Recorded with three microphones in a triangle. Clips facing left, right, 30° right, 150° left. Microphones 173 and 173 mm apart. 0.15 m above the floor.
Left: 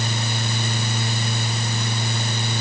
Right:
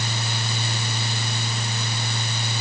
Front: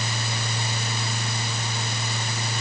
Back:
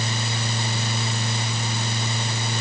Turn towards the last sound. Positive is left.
No sound to turn to.